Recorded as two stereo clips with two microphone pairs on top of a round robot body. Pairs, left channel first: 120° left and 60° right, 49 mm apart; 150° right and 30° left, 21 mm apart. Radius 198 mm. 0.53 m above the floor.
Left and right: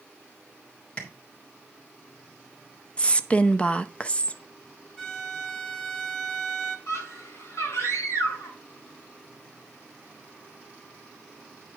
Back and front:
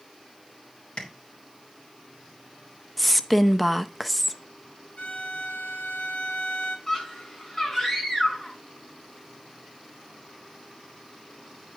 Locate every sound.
1.0 s tapping: 175° right, 3.5 m
3.0 s a woman speaking: 140° left, 0.9 m
5.0 s a violin: 160° right, 1.6 m
6.9 s a scream: 145° left, 6 m